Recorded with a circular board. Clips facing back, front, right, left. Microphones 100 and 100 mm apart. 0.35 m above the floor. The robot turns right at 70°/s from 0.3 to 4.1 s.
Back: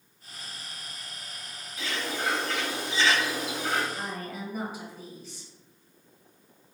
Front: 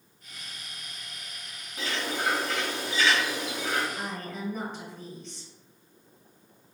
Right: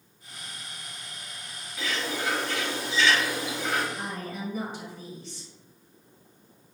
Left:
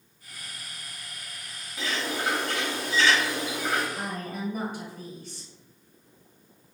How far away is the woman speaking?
About 1.5 m.